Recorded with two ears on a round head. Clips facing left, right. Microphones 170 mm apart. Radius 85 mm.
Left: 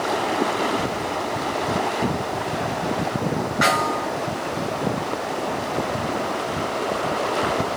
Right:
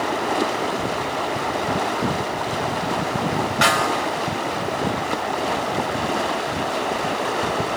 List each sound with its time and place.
3.6 s a snare drum: 40° right (ahead or behind), 4 m